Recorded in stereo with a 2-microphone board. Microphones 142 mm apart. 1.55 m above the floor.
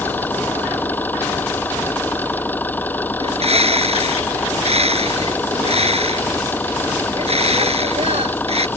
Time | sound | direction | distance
0.0 | an engine running | 10° left (ahead or behind) | ?
3.2 | a bird | 45° right (ahead or behind) | ?